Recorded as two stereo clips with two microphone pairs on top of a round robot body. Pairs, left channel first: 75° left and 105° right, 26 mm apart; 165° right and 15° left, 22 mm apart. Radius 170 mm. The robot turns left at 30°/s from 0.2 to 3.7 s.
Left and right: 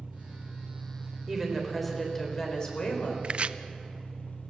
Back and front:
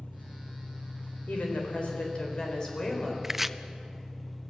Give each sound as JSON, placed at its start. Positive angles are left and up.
{"t": 0.0, "sound": "an engine running", "azimuth_deg": -145, "distance_m": 3.0}
{"t": 1.3, "sound": "a woman speaking", "azimuth_deg": 175, "distance_m": 4.0}
{"t": 3.2, "sound": "chopping", "azimuth_deg": -55, "distance_m": 0.7}